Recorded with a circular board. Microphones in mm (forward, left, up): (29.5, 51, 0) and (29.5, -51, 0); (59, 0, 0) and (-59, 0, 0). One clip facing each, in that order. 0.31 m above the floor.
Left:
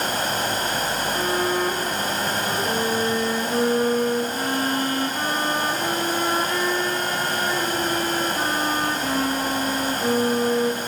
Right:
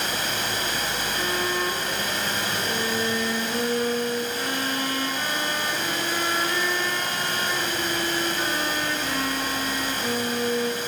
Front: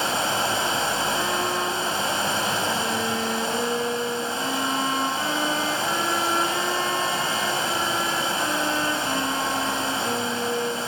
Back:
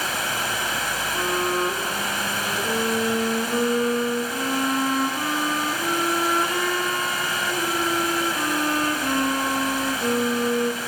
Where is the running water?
55° left, 1.7 m.